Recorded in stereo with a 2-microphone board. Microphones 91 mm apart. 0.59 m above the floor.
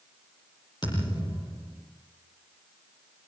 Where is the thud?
55° left (ahead or behind), 9 m.